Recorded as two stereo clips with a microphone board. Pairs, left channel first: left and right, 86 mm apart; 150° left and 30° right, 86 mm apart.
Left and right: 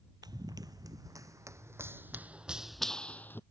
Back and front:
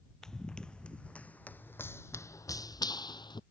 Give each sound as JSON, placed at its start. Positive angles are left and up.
{"t": 0.2, "sound": "running footsteps", "azimuth_deg": -125}